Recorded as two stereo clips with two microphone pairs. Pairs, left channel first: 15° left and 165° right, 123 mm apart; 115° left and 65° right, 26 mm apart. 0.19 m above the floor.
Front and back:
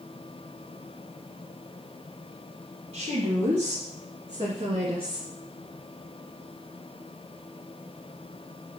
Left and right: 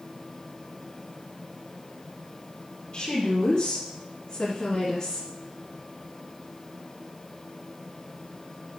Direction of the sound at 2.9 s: 170° left.